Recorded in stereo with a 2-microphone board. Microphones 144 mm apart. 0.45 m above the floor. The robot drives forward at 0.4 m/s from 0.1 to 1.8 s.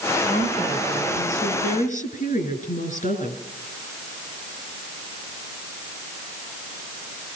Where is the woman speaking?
60° left (ahead or behind), 7.5 m; by 3.4 s 55° left (ahead or behind), 8 m.